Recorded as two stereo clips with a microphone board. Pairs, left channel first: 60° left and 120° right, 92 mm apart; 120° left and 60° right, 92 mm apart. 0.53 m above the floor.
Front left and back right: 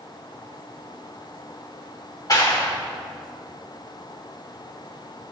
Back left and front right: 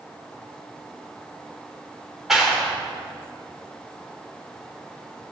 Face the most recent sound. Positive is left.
turn(degrees=25)